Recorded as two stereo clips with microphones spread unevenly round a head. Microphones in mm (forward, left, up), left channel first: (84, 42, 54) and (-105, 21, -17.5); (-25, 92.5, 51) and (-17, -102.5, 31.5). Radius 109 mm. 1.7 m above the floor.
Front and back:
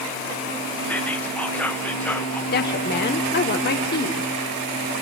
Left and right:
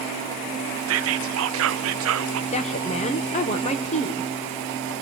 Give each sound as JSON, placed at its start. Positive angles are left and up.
{"t": 0.9, "sound": "whispering", "azimuth_deg": -65, "distance_m": 0.5}
{"t": 2.5, "sound": "a woman speaking", "azimuth_deg": 35, "distance_m": 1.1}